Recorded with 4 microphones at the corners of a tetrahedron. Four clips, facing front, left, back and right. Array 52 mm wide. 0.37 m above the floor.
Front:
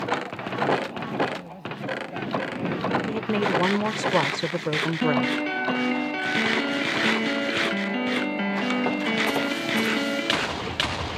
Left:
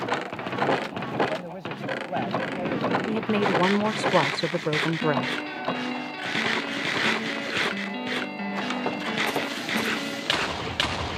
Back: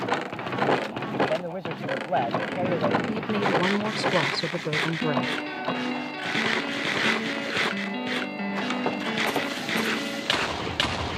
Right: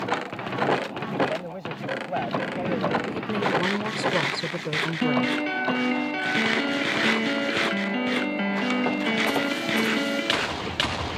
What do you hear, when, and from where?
1.3 s a man speaking: straight behind
3.1 s a woman speaking: 60° left
5.0 s a piano: 50° right